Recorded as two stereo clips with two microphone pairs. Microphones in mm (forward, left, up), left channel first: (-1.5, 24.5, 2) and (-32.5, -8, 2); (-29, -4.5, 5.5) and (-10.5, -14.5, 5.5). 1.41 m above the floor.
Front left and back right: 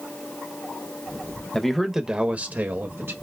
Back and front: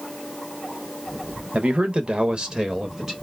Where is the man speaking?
30° right, 1.0 m; by 3.1 s 100° right, 1.5 m.